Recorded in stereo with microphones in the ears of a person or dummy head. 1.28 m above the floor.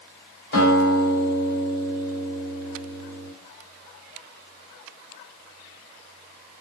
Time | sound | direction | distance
0.5 | a guitar | 70° left (ahead or behind) | 1.5 m